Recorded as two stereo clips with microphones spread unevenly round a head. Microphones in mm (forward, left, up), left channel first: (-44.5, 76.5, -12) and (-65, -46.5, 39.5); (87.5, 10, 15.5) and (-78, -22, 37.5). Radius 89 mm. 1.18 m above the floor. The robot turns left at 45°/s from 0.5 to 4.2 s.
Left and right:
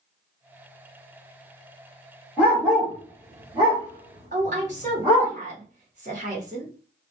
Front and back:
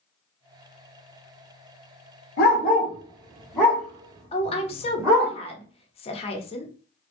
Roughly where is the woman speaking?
Ahead right.